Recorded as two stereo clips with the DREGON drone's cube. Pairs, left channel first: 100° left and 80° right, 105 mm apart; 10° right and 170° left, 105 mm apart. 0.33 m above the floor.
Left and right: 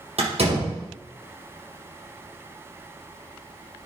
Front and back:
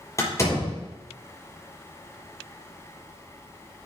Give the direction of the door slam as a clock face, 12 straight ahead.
2 o'clock.